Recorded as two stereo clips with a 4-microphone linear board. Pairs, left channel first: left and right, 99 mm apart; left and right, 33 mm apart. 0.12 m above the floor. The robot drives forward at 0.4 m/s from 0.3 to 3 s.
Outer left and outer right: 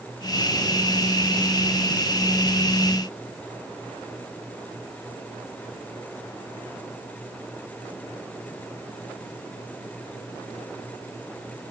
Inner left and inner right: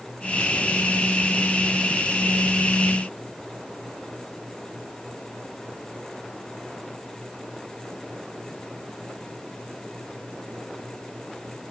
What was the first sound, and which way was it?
Only background noise.